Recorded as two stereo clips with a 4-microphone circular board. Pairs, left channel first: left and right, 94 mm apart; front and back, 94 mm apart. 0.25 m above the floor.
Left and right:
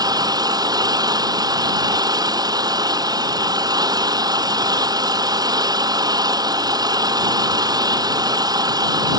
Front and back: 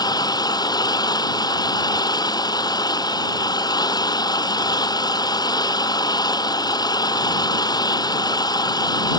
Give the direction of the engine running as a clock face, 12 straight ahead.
1 o'clock.